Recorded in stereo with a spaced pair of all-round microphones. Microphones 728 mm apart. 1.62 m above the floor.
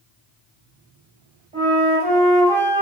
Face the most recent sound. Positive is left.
turn(degrees=-65)  # may be behind; listen again after turning